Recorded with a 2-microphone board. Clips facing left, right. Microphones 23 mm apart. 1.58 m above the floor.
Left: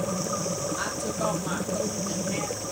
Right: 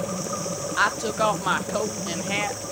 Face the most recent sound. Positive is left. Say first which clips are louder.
# right 7 dB
turn(degrees=-50)  # may be behind; listen again after turning